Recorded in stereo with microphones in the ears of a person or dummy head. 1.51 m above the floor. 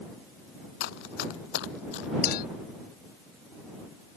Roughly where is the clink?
Left.